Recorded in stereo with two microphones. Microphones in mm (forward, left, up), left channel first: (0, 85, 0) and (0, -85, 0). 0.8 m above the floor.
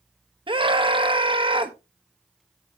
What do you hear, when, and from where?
0.5 s a scream: 30° right (ahead or behind), 1.1 m